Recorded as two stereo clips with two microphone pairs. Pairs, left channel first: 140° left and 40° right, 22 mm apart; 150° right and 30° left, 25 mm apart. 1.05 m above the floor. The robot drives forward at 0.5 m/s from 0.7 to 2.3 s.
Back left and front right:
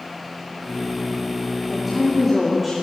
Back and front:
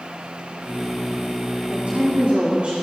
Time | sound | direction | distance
1.7 | a woman speaking | 50° left | 2.5 m